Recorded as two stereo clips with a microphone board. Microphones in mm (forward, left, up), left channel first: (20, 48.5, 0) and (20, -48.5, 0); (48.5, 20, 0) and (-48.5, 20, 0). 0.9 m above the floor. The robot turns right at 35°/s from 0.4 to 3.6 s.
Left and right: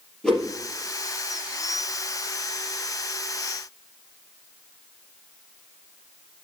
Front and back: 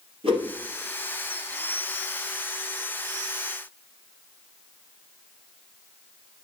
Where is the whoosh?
170° left, 3 m; by 0.5 s 175° left, 3 m.